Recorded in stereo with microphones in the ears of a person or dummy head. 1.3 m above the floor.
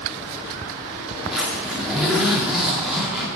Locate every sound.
1.3 s a zipper: centre (ahead or behind), 2 m